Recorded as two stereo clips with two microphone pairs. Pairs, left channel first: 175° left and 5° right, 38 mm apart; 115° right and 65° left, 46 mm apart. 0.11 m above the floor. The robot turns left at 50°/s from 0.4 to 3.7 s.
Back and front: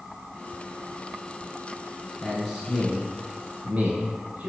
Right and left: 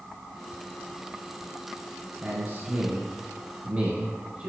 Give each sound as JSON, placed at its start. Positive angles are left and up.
{"t": 2.2, "sound": "a man speaking", "azimuth_deg": 105, "distance_m": 1.8}